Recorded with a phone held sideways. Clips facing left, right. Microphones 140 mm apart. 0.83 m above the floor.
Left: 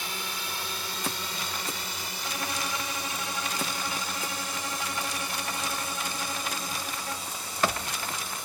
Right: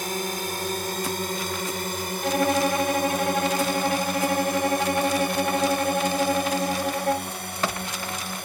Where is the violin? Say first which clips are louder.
Right 14 dB; 70° right (ahead or behind).